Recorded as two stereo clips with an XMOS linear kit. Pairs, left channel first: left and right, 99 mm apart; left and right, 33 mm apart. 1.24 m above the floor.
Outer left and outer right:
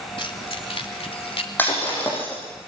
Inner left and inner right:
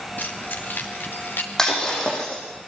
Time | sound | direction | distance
0.2 | keys jangling | 60° left (ahead or behind) | 3 m
1.6 | breaking glass | 20° left (ahead or behind) | 9 m